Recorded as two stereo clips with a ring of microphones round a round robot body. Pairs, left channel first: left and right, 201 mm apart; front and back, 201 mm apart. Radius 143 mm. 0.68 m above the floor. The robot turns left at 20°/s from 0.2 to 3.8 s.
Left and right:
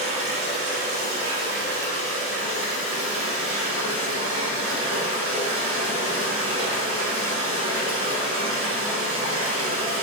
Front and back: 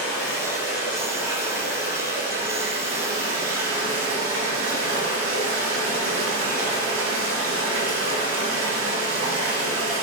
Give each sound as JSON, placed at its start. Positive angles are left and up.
{"t": 0.0, "sound": "running water", "azimuth_deg": -80, "distance_m": 1.2}